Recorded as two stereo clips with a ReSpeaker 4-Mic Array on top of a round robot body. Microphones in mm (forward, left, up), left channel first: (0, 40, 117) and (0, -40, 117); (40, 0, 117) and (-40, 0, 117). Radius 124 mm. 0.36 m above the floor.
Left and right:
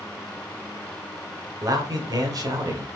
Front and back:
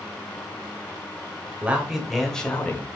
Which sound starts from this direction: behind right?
A man speaking, at 1.6 s.